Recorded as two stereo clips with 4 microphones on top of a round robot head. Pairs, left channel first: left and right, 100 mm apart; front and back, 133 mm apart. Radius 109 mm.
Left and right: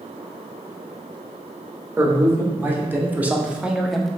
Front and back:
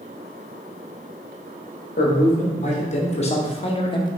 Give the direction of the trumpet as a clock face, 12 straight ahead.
I don't hear a trumpet.